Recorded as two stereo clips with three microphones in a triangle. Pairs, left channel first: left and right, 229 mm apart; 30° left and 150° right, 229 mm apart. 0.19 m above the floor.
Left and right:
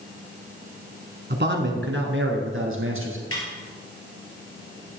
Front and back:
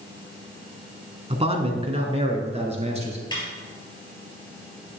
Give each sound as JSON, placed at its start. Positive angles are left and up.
{"t": 1.3, "sound": "a man speaking", "azimuth_deg": -95, "distance_m": 1.5}
{"t": 3.3, "sound": "a snare drum", "azimuth_deg": 100, "distance_m": 3.5}